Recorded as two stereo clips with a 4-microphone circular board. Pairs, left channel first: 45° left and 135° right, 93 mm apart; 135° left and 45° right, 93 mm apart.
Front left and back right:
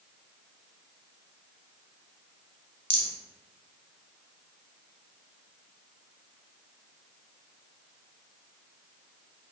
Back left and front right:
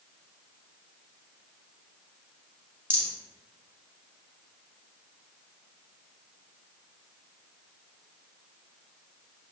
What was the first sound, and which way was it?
A rattle, 20° left.